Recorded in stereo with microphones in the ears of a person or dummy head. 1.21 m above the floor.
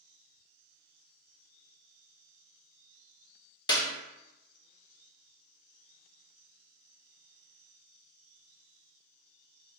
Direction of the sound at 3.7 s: 25° left (ahead or behind).